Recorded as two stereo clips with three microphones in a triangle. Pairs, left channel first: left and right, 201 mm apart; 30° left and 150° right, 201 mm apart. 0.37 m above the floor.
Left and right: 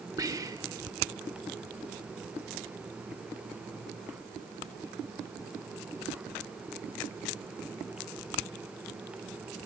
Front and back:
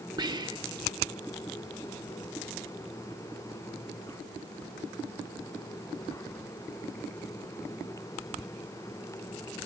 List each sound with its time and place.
0.2 s whispering: 130° right, 0.8 m